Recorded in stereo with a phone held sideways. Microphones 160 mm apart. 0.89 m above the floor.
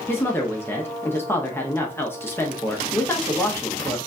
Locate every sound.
0.1 s a woman speaking: 15° left (ahead or behind), 0.7 m